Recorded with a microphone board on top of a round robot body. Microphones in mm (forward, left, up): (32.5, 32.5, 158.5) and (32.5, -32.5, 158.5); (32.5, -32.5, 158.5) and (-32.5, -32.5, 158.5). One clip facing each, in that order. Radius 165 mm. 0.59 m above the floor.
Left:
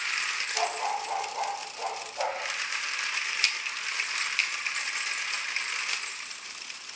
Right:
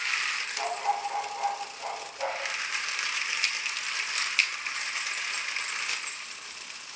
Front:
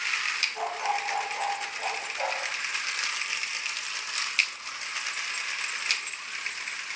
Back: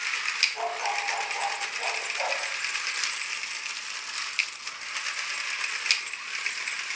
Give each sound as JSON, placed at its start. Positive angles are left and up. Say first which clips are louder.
{"t": 0.6, "sound": "a dog barking", "louder": "even, even", "azimuth_deg": 95, "distance_m": 7.5}